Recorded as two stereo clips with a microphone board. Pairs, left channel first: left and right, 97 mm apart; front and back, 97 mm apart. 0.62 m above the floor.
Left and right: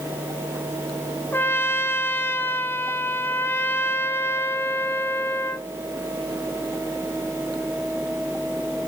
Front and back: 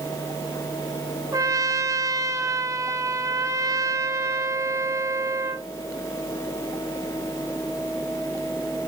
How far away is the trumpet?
About 0.8 m.